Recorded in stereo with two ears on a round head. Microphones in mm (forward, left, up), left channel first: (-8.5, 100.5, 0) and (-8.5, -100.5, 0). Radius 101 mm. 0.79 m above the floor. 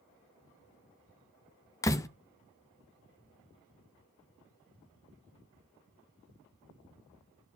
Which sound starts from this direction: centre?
A door slam, at 1.8 s.